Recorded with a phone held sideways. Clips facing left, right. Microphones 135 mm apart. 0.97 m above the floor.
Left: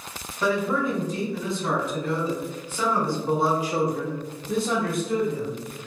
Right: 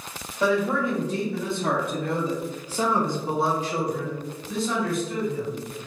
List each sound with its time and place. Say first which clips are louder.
0.4 s a man speaking: right 1 dB; 70° right (ahead or behind), 1.6 m; by 5.6 s 65° left (ahead or behind), 1.2 m